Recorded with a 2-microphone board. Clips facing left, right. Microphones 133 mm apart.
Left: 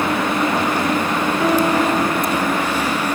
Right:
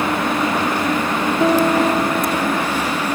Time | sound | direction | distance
1.4 | a piano | 25° right (ahead or behind) | 1.0 m